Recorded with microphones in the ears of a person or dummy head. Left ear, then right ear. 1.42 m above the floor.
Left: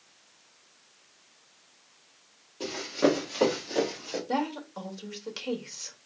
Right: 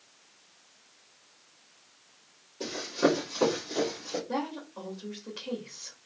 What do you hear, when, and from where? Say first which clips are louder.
2.6 s running footsteps: left 1 dB; 25° left (ahead or behind), 3 m; by 4.2 s 45° left (ahead or behind), 3.5 m
4.3 s a woman speaking: left 3 dB; 85° left, 2 m